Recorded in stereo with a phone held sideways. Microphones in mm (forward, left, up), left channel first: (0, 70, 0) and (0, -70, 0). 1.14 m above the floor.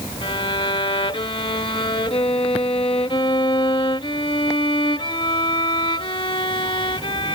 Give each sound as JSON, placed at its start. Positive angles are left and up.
{"t": 0.2, "sound": "a violin", "side_deg": 35}